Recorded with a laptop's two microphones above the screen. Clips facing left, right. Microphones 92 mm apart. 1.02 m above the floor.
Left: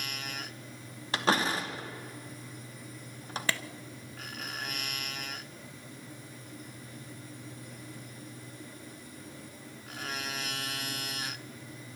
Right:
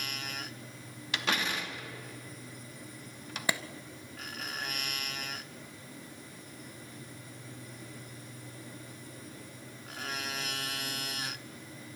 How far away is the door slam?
About 0.8 m.